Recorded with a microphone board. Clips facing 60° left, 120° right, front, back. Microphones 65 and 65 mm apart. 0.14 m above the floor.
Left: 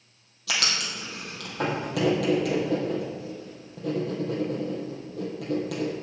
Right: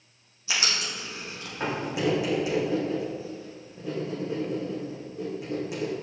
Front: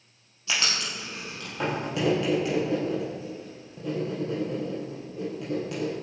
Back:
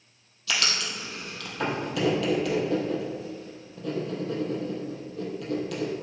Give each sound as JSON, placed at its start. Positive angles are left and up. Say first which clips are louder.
{"t": 0.5, "sound": "writing", "louder": "left 1 dB, even", "azimuth_deg": 65, "distance_m": 3.5}